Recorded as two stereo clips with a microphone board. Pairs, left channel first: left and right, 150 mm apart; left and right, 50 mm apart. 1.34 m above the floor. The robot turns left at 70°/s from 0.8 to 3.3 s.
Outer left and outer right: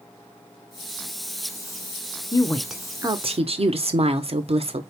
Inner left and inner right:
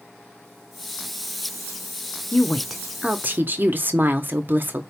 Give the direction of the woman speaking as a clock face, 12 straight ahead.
11 o'clock.